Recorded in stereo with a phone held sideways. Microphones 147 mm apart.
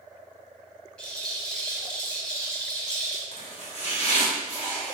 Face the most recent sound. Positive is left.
turn(degrees=45)  # may be behind; listen again after turning